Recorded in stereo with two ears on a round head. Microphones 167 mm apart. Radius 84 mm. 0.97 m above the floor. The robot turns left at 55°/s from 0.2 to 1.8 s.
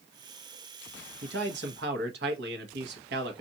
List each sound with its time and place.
1.2 s a man speaking: 70° right, 1.0 m; by 3.4 s 105° right, 1.0 m